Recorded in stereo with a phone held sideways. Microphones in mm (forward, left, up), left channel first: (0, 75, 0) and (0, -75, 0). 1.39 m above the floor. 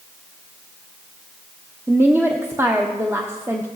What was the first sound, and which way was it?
A woman speaking, 15° right (ahead or behind).